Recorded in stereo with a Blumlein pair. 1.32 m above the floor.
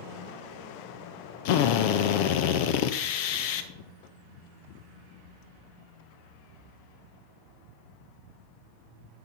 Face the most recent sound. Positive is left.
turn(degrees=50)